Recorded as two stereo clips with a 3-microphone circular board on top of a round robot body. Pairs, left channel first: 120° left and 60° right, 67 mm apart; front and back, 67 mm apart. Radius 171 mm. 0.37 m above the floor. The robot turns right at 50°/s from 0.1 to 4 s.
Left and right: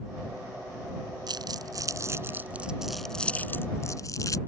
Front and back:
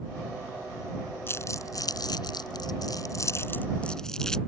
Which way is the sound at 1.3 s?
55° right.